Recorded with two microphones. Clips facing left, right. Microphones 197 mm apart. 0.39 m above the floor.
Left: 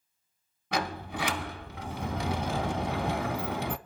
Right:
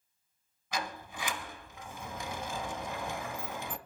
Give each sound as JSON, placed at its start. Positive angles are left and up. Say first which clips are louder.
{"t": 0.7, "sound": "a sliding door", "louder": "left 7 dB", "side_deg": 70, "distance_m": 0.8}